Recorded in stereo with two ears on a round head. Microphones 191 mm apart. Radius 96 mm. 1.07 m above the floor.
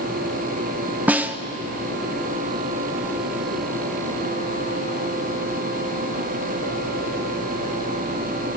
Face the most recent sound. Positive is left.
turn(degrees=-5)  # may be behind; listen again after turning